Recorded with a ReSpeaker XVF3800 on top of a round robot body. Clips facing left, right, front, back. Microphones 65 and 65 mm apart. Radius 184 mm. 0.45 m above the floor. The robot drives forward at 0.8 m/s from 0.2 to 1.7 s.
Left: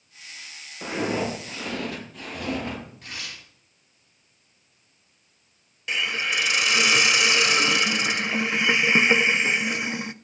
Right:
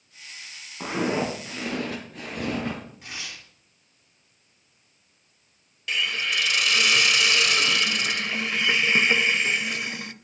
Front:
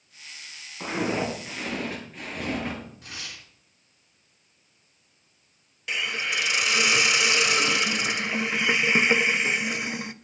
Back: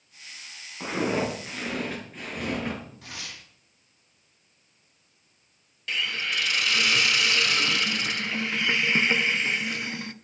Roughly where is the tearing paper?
Behind.